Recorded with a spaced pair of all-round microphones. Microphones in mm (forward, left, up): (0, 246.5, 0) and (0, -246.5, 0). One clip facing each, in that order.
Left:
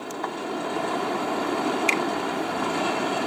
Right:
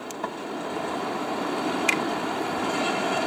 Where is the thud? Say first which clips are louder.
Even; 55° right (ahead or behind).